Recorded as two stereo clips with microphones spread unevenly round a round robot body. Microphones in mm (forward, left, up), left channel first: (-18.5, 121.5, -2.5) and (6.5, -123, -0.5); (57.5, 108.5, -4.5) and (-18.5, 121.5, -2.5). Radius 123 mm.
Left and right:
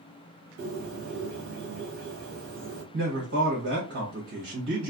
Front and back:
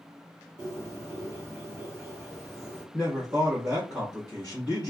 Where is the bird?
115° right, 0.9 m.